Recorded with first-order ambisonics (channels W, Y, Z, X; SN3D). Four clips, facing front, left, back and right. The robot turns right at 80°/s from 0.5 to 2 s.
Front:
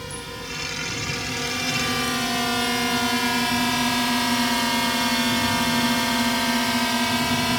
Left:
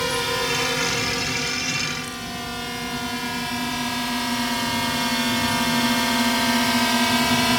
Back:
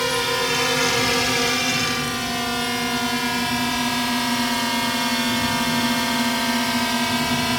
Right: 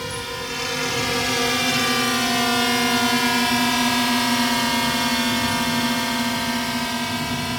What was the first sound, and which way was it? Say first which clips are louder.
A drone: left 6 dB, back 13 dB; 155° left.